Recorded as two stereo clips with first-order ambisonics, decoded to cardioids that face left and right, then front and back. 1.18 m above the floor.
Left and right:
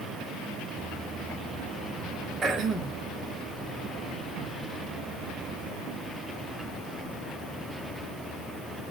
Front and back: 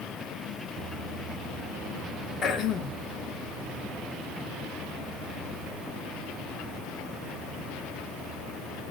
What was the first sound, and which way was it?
Throat clearing, 35° right.